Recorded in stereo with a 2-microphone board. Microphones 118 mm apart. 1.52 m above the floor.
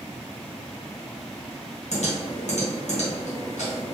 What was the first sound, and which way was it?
Typing on a keyboard, 70° left (ahead or behind).